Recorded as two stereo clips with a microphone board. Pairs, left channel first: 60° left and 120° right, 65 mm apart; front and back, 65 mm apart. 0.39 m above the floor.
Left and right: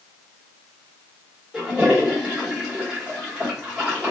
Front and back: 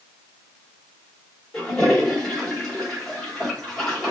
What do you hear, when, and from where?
1.5 s a toilet flushing: 65° right, 1.3 m